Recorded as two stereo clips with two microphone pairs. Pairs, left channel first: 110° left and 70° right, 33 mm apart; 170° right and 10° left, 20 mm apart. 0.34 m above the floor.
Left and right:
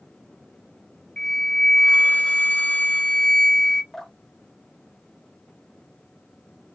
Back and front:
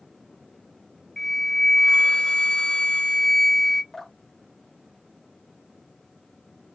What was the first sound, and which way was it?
A flute, 140° left.